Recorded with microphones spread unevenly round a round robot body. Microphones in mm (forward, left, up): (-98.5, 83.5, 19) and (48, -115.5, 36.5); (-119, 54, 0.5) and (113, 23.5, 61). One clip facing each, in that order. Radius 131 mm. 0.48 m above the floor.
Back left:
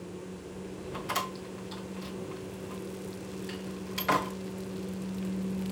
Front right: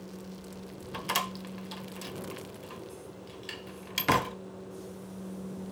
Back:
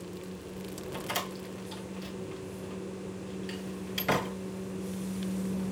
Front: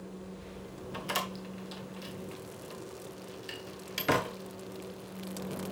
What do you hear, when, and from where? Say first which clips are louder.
0.9 s a door slam: back left 1 dB, back 2 dB; 95° right, 1.5 m